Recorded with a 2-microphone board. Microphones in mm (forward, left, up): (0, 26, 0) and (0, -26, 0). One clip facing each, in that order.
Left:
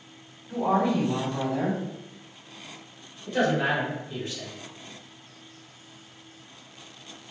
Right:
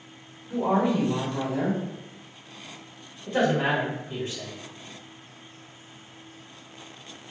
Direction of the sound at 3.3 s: 35° right (ahead or behind).